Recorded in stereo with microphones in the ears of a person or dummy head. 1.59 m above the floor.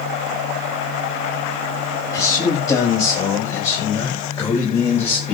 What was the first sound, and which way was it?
A man speaking, 20° left (ahead or behind).